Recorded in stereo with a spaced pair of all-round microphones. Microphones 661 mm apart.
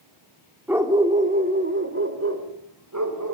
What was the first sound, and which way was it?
A dog barking, 5° right (ahead or behind).